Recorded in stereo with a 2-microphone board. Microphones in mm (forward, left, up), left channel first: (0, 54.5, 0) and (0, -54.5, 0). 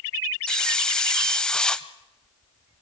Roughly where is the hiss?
Centre.